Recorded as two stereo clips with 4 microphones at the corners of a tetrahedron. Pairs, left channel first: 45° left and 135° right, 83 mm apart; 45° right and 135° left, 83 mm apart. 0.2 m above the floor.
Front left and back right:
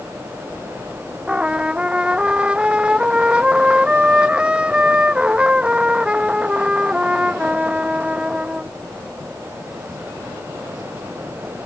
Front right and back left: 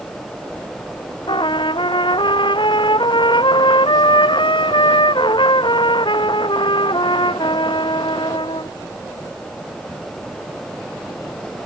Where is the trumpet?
55° right.